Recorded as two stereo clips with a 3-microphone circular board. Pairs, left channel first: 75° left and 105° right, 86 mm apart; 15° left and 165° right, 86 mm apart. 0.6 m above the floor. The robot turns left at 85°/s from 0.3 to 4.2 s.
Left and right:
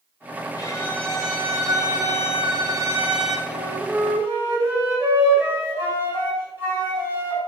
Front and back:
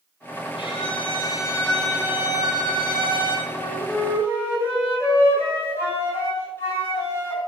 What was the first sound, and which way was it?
A violin, 35° left.